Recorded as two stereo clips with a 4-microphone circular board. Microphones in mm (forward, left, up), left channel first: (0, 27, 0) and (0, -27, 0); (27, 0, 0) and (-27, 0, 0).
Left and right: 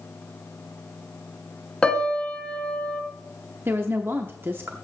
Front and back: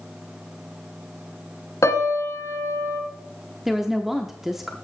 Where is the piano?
15° left, 1.7 m.